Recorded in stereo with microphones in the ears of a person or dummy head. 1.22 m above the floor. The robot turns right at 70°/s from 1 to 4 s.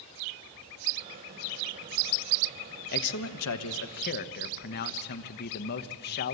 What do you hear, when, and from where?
2.9 s a man speaking: 50° left, 0.9 m; by 6.3 s 130° left, 0.9 m